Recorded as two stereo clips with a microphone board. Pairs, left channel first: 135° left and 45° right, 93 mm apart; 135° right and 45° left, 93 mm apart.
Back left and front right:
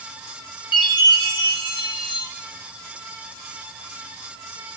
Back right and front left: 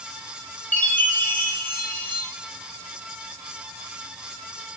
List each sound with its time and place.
0.7 s a chime: 155° left, 1.5 m